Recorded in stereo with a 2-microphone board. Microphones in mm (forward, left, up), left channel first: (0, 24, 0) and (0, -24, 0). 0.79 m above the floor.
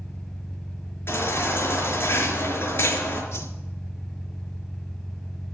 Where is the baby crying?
50° left (ahead or behind), 5 m.